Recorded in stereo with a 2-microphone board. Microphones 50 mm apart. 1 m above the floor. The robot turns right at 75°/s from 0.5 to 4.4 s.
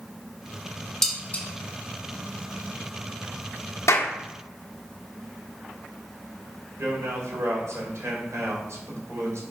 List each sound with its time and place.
1.0 s dishes clattering: 10° left (ahead or behind), 1.6 m; by 1.4 s 40° left (ahead or behind), 1.6 m
3.9 s a clap: 85° left, 1.5 m; by 4.1 s 70° left (ahead or behind), 1.5 m
6.8 s a man speaking: 70° right (ahead or behind), 3.5 m